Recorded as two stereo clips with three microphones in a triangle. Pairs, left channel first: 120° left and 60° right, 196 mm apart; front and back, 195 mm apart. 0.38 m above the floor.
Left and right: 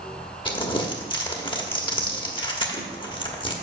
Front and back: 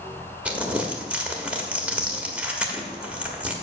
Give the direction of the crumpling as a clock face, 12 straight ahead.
9 o'clock.